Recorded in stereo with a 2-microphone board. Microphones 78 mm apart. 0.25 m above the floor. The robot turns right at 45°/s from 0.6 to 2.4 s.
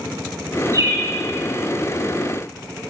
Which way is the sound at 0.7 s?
45° right (ahead or behind).